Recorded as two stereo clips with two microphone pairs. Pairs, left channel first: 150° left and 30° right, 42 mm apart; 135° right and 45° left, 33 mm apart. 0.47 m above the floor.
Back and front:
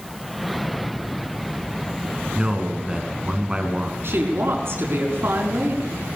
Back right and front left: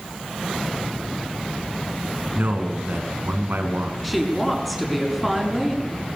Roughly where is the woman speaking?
Ahead right.